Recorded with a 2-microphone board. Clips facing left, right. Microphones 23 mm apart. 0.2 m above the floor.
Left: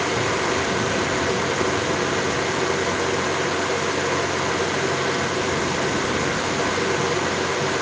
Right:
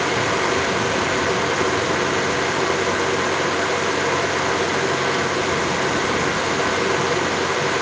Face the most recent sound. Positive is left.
No sound to turn to.